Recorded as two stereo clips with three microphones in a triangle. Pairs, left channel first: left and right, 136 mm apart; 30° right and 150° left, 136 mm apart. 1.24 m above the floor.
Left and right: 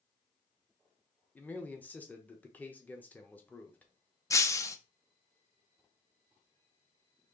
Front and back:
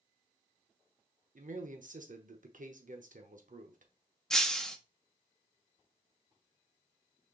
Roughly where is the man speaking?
Behind.